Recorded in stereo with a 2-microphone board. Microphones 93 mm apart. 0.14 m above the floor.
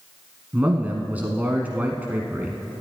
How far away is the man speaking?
About 1.0 m.